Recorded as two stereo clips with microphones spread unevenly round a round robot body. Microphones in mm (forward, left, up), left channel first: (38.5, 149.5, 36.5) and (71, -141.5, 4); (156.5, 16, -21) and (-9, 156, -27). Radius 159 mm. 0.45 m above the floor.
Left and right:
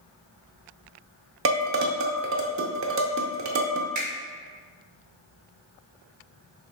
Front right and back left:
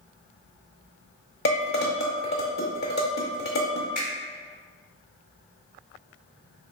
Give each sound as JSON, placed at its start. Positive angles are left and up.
{"t": 1.4, "sound": "dishes clattering", "azimuth_deg": -75, "distance_m": 0.6}
{"t": 4.0, "sound": "a finger snap", "azimuth_deg": -100, "distance_m": 1.7}